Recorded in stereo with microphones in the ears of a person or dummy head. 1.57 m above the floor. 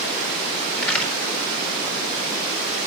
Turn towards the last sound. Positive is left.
turn(degrees=10)  # may be behind; listen again after turning